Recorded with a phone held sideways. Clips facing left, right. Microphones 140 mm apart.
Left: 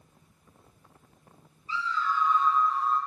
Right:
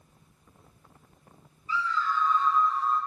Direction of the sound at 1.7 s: 30° left (ahead or behind).